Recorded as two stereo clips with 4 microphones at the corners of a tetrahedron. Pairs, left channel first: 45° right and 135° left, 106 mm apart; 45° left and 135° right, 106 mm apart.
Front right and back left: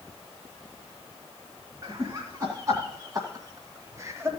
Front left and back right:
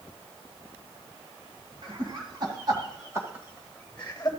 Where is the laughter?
165° right, 3 m; by 4.3 s 85° left, 1.4 m.